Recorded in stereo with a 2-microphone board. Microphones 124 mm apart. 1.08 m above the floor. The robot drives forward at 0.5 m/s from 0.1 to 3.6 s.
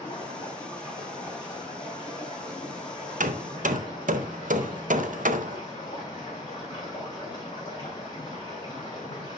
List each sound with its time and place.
0.0 s running water: 25° left (ahead or behind), 5 m; by 9.4 s 35° left (ahead or behind), 3.5 m
3.2 s hammering: 75° right (ahead or behind), 0.5 m; by 5.6 s 80° right, 0.5 m